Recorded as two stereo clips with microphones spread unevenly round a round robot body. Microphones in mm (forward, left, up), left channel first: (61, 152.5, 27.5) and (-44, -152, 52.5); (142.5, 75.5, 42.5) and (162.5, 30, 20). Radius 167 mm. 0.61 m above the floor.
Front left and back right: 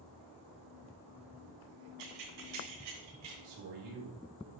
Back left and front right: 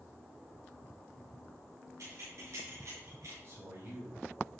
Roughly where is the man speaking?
Behind right.